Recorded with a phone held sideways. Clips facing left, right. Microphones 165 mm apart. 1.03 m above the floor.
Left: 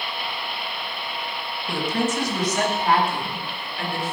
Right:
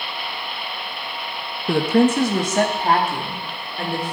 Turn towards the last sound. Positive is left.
turn(degrees=-35)  # may be behind; listen again after turning